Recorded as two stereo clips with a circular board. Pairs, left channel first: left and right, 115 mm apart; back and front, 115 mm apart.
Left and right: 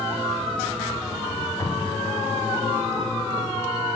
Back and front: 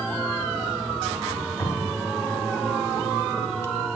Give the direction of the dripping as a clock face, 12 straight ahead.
7 o'clock.